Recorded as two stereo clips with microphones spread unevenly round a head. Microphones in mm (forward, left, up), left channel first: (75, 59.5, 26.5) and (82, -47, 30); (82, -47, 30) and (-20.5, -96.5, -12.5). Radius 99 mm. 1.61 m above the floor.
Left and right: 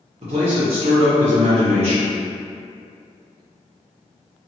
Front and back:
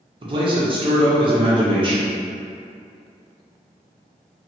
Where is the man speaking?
100° right, 1.0 m.